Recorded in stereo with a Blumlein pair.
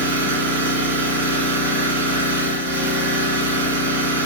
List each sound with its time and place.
0.0 s an engine running: 65° right, 4.5 m